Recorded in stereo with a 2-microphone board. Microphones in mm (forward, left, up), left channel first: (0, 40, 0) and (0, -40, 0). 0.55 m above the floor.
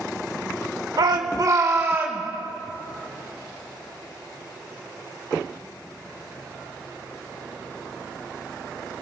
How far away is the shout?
About 1.5 m.